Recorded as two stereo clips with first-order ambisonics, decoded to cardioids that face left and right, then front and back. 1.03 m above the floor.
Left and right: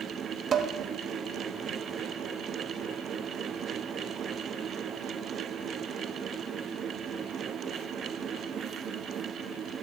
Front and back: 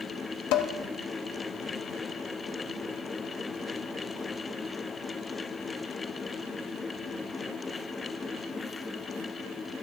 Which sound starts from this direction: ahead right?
Dishes clattering, at 0.5 s.